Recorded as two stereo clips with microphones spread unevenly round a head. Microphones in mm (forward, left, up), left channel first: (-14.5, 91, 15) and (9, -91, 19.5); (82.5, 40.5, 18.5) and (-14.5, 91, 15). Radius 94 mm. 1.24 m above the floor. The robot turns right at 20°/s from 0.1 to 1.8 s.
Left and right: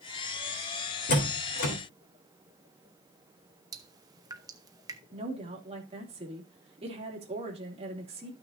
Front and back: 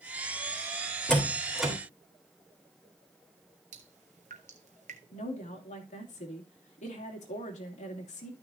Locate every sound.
1.1 s a door slam: 55° left, 3 m; by 1.7 s 70° left, 3 m
3.7 s dripping: 155° right, 0.8 m
5.1 s a woman speaking: 20° right, 2.5 m